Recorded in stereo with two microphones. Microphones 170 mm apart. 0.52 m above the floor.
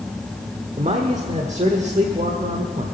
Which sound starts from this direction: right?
A man speaking, at 0.8 s.